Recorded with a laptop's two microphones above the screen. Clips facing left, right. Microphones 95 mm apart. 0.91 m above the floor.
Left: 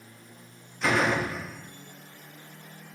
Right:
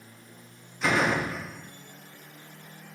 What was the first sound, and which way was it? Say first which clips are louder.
A door slam: even; 5° right (ahead or behind).